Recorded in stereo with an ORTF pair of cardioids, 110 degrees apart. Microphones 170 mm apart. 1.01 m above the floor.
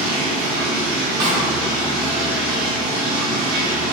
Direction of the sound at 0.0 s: 60° right.